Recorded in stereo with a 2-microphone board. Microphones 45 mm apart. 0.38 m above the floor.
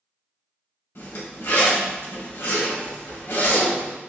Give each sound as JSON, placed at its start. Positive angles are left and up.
{"t": 0.9, "sound": "a zipper", "side_deg": 65, "distance_m": 1.1}